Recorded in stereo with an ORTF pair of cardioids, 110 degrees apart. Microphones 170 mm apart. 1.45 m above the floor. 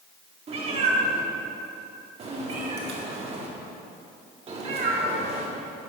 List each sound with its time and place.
0.5 s a cat meowing: 40° right, 1.9 m